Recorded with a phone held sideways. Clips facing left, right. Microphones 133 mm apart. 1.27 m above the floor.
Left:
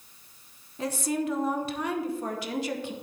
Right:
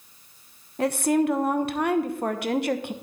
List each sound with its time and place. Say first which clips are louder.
0.8 s a woman speaking: right 7 dB; 65° right (ahead or behind), 1.0 m